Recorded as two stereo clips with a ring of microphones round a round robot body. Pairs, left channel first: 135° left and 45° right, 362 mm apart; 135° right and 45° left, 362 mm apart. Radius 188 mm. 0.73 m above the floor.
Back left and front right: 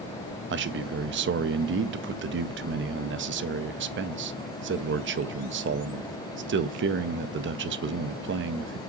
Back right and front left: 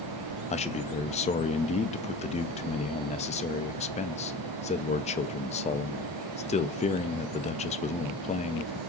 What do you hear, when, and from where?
0.5 s a man speaking: 75° right, 0.6 m